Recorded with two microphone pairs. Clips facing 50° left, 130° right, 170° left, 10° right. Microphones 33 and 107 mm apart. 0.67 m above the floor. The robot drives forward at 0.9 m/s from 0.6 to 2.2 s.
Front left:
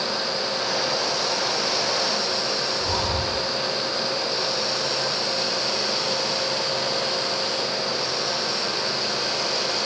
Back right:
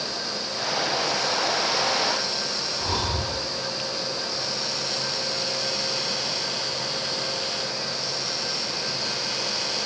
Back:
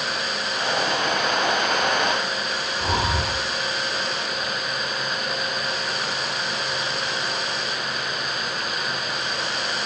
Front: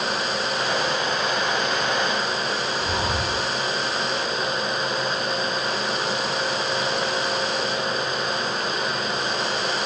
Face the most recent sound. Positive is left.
turn(degrees=165)